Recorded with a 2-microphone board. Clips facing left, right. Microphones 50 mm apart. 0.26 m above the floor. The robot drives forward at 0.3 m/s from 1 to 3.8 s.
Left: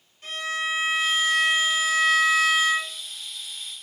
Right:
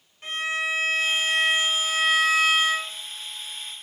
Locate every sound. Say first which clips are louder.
0.2 s a violin: right 1 dB; 35° right (ahead or behind), 1.1 m